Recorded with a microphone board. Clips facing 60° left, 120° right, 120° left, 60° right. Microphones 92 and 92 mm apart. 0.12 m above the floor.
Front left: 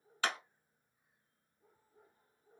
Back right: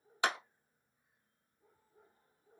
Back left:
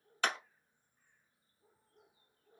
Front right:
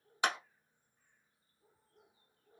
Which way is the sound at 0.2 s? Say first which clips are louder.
Back right 3 dB, front right 1 dB; 100° right.